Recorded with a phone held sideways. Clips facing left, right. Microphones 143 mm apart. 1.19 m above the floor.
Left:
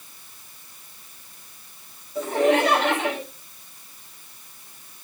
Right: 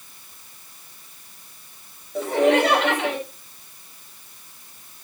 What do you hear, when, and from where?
2.1 s laughter: 70° right (ahead or behind), 6.5 m